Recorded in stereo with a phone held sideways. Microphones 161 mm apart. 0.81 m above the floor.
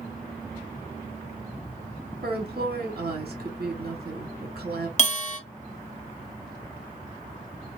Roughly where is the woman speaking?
Right.